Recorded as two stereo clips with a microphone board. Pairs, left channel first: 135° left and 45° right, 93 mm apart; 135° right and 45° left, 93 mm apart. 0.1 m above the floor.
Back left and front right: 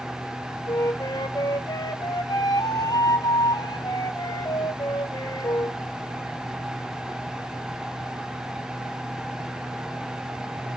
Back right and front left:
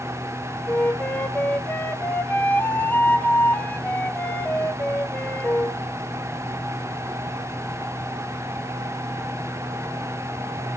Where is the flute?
160° left, 0.5 m.